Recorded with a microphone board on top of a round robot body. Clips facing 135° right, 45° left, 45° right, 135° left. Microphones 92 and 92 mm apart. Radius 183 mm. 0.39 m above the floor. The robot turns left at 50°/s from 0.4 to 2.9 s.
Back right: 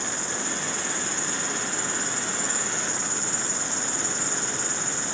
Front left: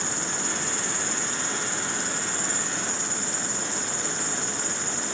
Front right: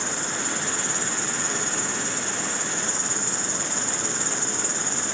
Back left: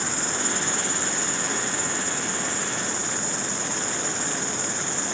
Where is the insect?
50° left, 3 m; by 5.2 s 75° right, 3 m.